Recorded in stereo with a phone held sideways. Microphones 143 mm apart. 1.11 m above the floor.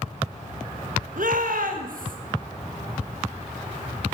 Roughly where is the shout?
Right.